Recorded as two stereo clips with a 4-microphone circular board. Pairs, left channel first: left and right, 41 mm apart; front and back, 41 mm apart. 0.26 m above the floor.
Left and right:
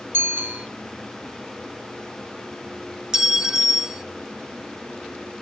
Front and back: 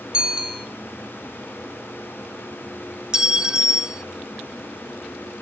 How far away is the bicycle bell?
About 3.5 m.